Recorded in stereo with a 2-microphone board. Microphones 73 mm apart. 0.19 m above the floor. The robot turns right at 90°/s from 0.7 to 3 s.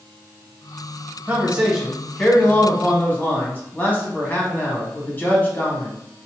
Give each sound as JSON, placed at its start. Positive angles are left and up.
{"t": 1.3, "sound": "a man speaking", "side_deg": -20, "distance_m": 1.1}